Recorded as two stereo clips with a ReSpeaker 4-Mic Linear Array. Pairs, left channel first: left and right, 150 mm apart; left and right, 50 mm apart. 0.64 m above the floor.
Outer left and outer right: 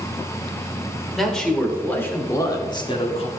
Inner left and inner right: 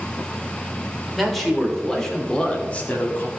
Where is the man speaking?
Centre (ahead or behind), 2.5 m; by 3.3 s 45° left (ahead or behind), 1.7 m.